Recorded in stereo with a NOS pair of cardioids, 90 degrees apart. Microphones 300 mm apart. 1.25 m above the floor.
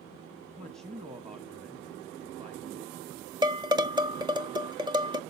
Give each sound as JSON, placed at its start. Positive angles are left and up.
{"t": 0.6, "sound": "a man speaking", "azimuth_deg": -20, "distance_m": 1.4}
{"t": 3.4, "sound": "dishes clattering", "azimuth_deg": -15, "distance_m": 0.8}